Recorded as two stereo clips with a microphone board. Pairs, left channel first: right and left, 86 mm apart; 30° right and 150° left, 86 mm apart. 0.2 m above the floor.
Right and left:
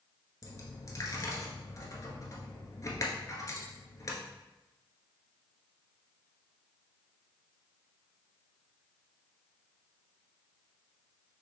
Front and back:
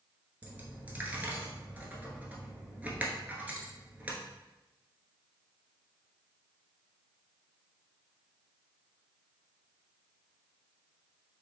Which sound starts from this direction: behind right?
A dropped coin, at 0.4 s.